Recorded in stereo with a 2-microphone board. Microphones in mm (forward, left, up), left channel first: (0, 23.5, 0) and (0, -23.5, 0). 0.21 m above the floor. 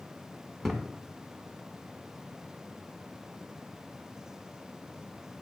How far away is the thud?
About 0.6 m.